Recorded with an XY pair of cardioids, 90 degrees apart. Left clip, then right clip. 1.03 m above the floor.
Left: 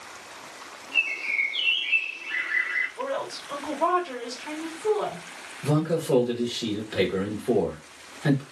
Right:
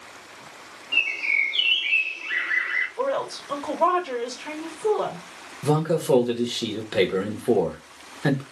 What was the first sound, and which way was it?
A bird, 60° right.